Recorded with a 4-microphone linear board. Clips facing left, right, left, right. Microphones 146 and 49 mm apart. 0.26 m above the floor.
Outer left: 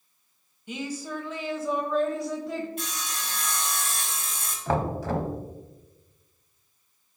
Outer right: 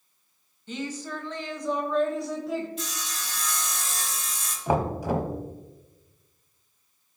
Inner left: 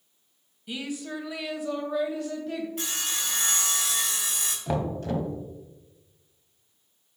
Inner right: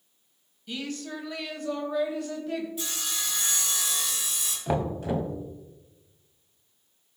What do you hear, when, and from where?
0.7 s a woman speaking: 10° left (ahead or behind), 1.4 m; by 2.7 s 5° right (ahead or behind), 1.5 m
2.8 s sawing: 55° left (ahead or behind), 1.8 m
4.7 s knocking: 10° right (ahead or behind), 1.0 m